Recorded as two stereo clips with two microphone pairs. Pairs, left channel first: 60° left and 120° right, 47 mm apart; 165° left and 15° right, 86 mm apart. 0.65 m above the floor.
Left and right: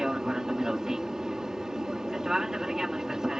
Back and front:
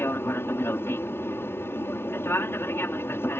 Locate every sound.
0.0 s an aircraft: straight behind